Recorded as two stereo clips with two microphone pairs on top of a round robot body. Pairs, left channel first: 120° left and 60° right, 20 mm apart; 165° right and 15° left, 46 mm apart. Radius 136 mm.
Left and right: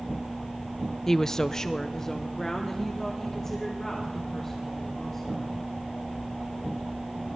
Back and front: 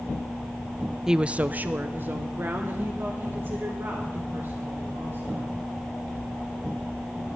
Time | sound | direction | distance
1.1 | a woman speaking | 110° left | 0.5 m